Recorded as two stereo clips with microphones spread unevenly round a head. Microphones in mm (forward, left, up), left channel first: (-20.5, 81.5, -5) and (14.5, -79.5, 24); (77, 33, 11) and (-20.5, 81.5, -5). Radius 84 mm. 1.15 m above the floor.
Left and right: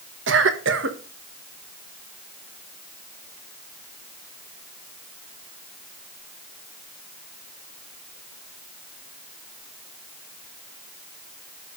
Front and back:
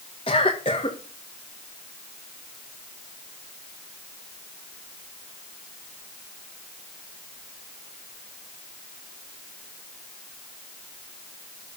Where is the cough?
85° right, 1.5 m.